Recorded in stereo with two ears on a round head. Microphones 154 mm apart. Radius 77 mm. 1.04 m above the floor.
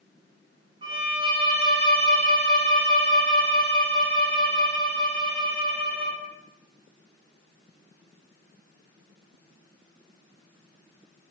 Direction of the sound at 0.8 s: 30° right (ahead or behind).